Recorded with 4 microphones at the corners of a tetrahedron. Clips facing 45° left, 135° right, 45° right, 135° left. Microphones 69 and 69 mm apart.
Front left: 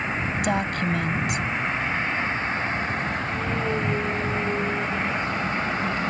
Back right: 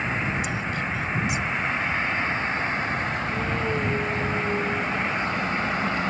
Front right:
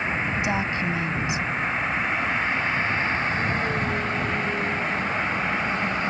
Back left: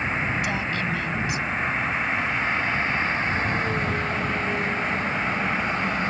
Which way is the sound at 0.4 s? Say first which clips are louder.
Front left 4 dB, front right 1 dB; 20° left.